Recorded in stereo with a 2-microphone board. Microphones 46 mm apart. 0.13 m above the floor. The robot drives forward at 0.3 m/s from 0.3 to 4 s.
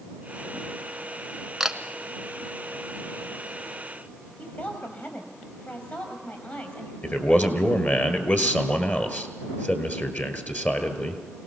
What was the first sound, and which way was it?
A camera shutter, 10° right (ahead or behind).